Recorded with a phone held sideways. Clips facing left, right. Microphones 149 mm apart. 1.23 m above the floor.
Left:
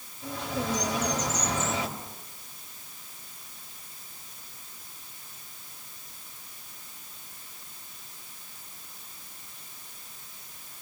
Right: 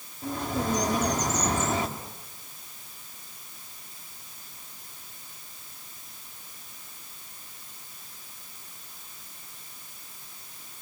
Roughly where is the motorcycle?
No motorcycle in this recording.